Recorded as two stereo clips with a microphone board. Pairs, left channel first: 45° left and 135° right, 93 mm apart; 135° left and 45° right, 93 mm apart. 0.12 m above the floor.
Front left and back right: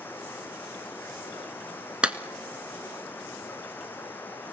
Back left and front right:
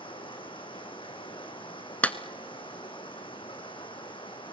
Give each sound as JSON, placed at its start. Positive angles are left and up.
{"t": 0.0, "sound": "running water", "azimuth_deg": 115, "distance_m": 2.0}
{"t": 2.0, "sound": "a clap", "azimuth_deg": 175, "distance_m": 1.0}